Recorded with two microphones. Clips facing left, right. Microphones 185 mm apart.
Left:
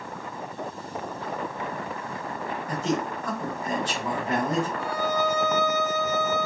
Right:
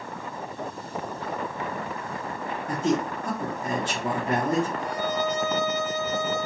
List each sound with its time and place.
2.7 s a man speaking: 45° right (ahead or behind), 1.3 m
4.8 s a violin: 20° right (ahead or behind), 1.9 m